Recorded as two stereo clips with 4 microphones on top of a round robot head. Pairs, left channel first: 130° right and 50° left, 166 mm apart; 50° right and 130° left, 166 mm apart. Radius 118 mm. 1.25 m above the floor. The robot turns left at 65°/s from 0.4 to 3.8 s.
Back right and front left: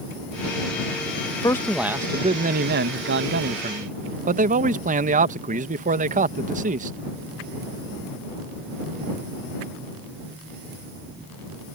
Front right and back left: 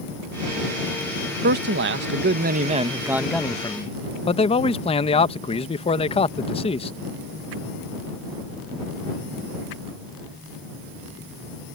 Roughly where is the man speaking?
Behind.